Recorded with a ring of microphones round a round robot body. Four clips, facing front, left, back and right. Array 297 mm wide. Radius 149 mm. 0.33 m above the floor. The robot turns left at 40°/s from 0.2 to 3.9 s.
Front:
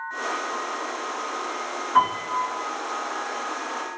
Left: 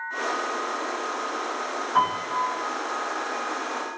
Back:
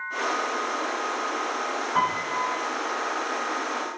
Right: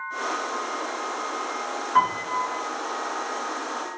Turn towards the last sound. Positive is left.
turn(degrees=-130)